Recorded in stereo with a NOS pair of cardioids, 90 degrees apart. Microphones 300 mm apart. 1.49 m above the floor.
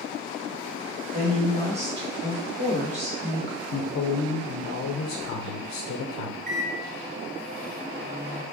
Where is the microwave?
30° right, 1.7 m.